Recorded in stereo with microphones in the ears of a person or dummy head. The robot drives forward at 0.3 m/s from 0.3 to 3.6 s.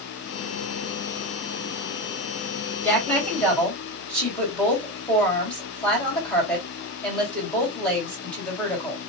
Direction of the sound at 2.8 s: 5° left (ahead or behind).